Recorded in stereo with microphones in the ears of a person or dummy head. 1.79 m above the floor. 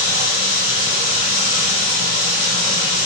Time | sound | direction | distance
0.0 | running water | 50° right (ahead or behind) | 0.9 m